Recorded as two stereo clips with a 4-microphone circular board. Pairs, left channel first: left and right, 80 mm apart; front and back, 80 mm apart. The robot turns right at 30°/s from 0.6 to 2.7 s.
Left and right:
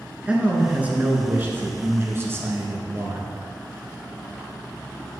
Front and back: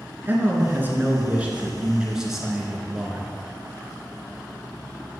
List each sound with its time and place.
0.2 s a man speaking: 150° right, 1.3 m; by 3.3 s 85° right, 1.3 m